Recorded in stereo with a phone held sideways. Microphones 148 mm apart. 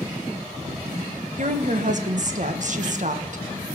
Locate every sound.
1.4 s a woman speaking: 55° right (ahead or behind), 1.4 m